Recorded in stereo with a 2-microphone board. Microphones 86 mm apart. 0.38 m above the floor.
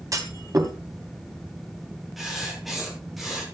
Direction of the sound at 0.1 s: 40° right (ahead or behind).